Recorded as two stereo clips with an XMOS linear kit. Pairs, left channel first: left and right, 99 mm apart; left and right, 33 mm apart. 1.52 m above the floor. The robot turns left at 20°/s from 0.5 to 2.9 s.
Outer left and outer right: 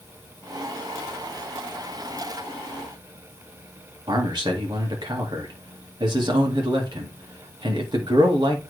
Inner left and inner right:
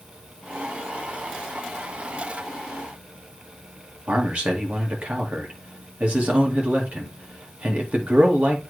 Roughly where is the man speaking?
Right.